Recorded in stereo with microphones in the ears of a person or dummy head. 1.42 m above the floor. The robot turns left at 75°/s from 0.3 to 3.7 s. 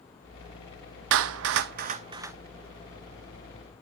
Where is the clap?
70° right (ahead or behind), 0.5 m; by 2.4 s 10° right (ahead or behind), 0.5 m.